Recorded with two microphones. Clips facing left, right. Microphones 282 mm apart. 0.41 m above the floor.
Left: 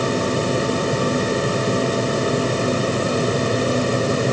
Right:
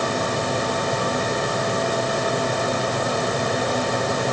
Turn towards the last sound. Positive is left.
No sound to turn to.